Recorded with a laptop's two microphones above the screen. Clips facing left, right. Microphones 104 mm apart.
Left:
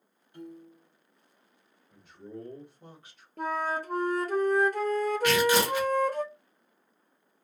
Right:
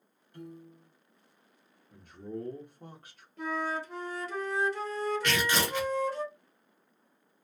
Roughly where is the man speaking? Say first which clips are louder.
Right 4 dB; right.